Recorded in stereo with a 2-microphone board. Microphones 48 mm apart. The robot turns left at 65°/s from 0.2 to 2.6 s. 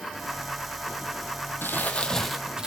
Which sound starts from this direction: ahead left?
Crumpling, at 1.6 s.